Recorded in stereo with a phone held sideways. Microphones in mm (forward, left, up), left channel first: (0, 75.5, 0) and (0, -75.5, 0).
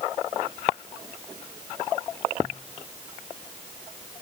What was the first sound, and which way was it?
Only background noise.